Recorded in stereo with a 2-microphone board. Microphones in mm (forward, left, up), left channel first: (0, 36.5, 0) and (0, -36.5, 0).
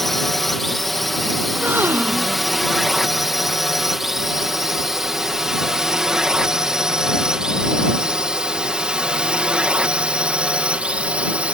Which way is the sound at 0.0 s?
Centre (ahead or behind).